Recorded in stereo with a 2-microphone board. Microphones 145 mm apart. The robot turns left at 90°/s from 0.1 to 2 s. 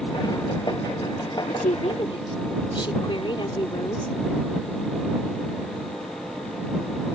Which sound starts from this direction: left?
A woman speaking, at 1.4 s.